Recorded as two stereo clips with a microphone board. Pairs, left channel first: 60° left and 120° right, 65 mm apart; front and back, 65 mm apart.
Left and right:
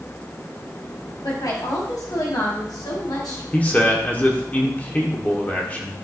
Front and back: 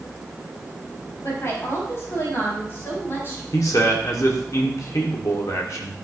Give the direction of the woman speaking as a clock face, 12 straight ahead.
11 o'clock.